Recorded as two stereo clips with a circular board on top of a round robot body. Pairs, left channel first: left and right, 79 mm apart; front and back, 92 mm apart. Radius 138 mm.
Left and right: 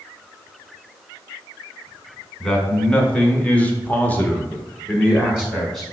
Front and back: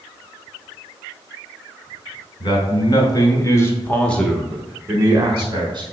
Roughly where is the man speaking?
Ahead.